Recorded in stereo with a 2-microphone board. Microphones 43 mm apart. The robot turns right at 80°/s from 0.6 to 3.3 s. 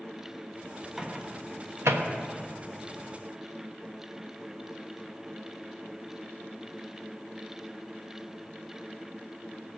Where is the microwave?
10° right (ahead or behind), 1.0 m; by 2.1 s 80° right, 1.0 m.